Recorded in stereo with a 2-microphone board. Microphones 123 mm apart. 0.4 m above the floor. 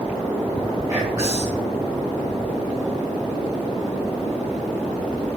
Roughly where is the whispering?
Right.